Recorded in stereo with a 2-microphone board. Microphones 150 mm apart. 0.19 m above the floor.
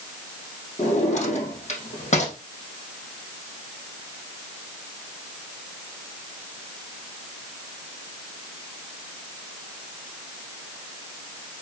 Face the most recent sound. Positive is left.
turn(degrees=50)  # may be behind; listen again after turning